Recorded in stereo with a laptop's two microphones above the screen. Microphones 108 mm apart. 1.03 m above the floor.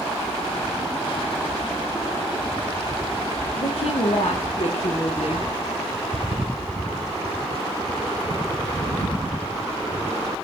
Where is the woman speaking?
70° left (ahead or behind), 0.7 m.